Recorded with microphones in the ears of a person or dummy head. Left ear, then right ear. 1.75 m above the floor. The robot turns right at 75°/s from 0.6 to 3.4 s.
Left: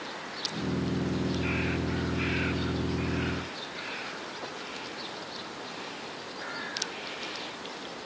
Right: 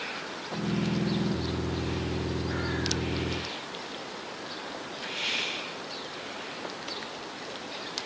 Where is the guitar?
I don't hear a guitar.